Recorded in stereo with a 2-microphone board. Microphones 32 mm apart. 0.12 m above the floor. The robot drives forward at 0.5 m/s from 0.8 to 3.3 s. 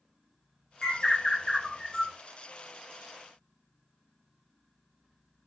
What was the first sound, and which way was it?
A bird, 15° left (ahead or behind).